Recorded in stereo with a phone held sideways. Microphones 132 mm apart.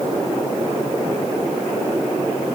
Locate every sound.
Only background noise.